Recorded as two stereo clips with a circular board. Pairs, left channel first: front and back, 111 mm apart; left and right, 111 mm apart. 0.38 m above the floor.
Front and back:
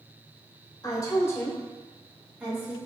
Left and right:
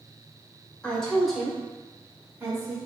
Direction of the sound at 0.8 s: 15° left.